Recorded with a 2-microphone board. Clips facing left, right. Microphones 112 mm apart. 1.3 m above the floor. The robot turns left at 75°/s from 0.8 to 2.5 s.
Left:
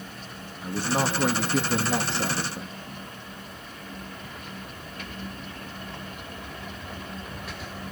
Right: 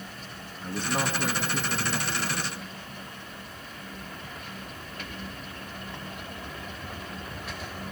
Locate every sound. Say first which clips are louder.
0.6 s a man speaking: left 3 dB; 170° left, 2 m; by 3.0 s 45° left, 2 m